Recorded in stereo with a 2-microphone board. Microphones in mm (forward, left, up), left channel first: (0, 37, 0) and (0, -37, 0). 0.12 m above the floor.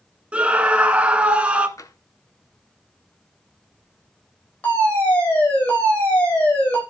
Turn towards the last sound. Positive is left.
turn(degrees=25)  # may be behind; listen again after turning